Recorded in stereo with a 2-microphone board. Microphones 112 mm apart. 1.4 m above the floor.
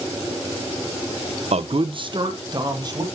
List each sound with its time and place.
1.5 s a man speaking: 70° right (ahead or behind), 0.6 m; by 3.0 s 35° right (ahead or behind), 2.5 m